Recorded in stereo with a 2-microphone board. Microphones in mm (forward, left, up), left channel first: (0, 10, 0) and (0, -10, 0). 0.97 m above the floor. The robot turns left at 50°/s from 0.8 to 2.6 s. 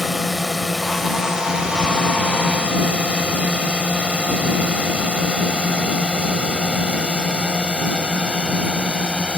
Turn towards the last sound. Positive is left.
turn(degrees=-60)  # may be behind; listen again after turning